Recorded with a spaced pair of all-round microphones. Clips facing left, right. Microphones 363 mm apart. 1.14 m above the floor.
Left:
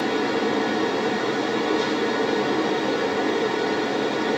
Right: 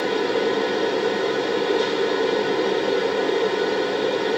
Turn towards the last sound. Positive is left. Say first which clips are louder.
# right 2 dB
turn(degrees=55)  # may be behind; listen again after turning